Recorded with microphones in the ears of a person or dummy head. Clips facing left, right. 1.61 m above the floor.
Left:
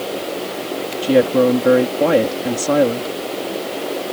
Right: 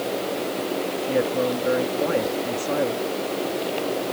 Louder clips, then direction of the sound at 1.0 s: Left 11 dB; 85° left.